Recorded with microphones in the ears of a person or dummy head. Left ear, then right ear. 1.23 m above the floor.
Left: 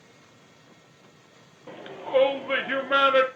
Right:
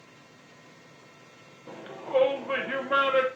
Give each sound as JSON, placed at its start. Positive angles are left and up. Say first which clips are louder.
{"t": 1.7, "sound": "a shout", "louder": "left 2 dB", "side_deg": 20, "distance_m": 0.7}